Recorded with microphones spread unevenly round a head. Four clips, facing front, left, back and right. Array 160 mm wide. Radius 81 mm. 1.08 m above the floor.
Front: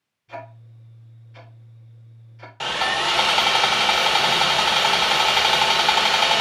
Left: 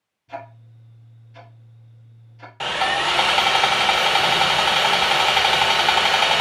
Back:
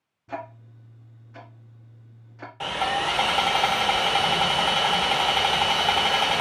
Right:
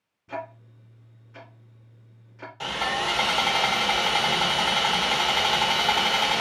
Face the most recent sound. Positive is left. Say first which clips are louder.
# left 6 dB, front 2 dB
turn(degrees=80)